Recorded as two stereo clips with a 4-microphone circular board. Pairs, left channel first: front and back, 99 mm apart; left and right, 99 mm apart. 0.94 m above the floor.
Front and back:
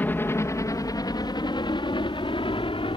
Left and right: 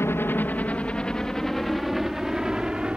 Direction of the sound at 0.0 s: 55° left.